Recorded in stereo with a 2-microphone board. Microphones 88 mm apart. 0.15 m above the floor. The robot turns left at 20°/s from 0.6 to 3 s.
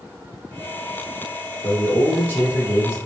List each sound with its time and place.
1.6 s a man speaking: 15° left (ahead or behind), 1.8 m; by 3.0 s 30° left (ahead or behind), 1.8 m